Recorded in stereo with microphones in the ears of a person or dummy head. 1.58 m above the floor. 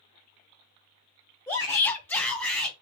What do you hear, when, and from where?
1.5 s a shout: 10° left (ahead or behind), 0.5 m; by 2.7 s 5° left (ahead or behind), 1.8 m